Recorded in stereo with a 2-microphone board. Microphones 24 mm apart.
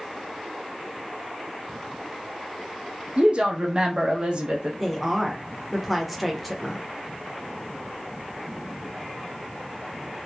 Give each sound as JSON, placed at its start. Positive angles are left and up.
{"t": 3.2, "sound": "a woman speaking", "side_deg": -50, "distance_m": 0.6}
{"t": 4.8, "sound": "a woman speaking", "side_deg": 0, "distance_m": 0.7}